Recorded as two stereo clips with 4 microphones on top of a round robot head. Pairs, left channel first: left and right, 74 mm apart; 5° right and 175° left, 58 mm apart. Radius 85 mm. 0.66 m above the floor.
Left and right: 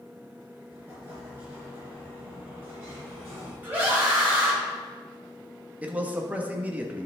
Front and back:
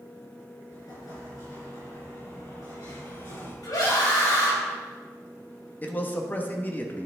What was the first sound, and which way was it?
An explosion, 25° right.